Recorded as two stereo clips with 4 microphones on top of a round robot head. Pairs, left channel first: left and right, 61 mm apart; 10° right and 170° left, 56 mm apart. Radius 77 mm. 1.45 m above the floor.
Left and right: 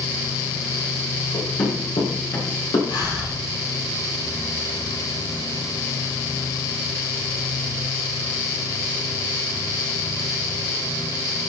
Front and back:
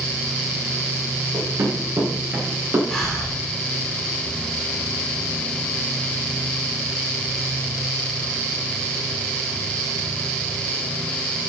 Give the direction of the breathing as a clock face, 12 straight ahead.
10 o'clock.